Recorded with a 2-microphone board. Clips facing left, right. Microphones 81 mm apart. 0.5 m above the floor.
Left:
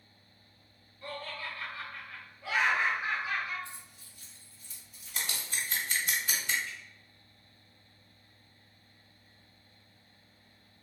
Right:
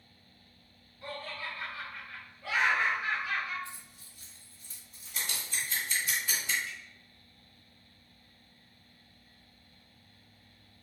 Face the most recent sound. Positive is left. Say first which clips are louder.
# even
turn(degrees=-75)  # may be behind; listen again after turning